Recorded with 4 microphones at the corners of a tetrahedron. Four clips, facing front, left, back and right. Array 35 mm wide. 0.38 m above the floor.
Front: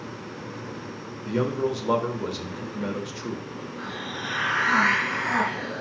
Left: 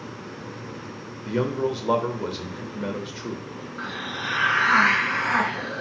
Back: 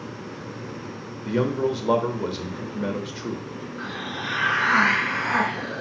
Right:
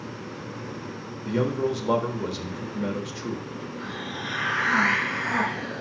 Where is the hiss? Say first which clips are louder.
Left 5 dB, back 2 dB; 115° left, 3 m.